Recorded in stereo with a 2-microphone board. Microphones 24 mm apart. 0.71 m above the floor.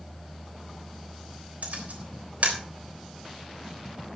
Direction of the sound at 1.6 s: 75° right (ahead or behind).